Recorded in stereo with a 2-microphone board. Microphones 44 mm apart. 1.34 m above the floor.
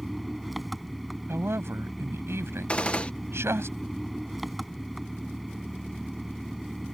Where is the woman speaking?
70° right (ahead or behind).